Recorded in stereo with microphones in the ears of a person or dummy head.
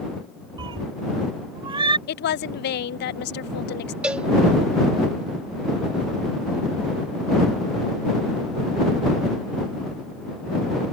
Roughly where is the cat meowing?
Right.